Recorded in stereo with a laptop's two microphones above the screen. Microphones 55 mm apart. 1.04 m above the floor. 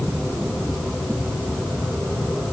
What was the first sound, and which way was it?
Only background noise.